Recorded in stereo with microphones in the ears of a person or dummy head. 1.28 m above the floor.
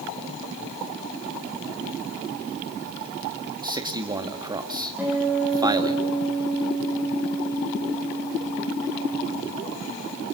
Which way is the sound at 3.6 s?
20° right (ahead or behind).